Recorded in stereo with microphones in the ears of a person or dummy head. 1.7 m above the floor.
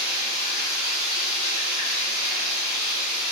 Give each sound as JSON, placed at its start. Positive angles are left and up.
{"t": 0.0, "sound": "running water", "side_deg": 50, "distance_m": 0.9}